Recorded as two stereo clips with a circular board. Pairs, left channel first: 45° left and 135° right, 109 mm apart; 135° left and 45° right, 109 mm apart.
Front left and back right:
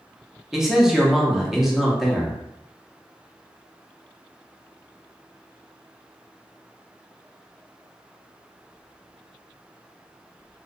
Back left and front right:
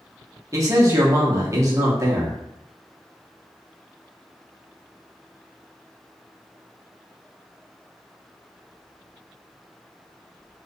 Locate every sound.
0.5 s a man speaking: 50° right, 0.6 m